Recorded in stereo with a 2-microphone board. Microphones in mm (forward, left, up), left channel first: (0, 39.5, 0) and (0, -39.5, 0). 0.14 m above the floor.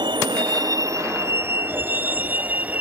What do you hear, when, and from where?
0.0 s a vehicle: 75° right (ahead or behind); by 2.8 s 20° right (ahead or behind)